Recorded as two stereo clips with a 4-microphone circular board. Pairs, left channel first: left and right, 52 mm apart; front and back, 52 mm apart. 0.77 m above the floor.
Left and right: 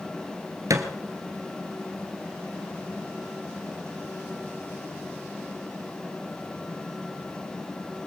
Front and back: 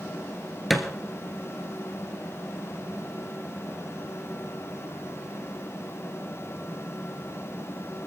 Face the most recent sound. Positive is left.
turn(degrees=-90)